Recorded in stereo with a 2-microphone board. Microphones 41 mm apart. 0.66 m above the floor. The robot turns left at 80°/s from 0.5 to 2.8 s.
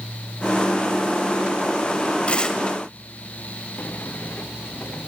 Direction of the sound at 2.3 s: 35° left (ahead or behind).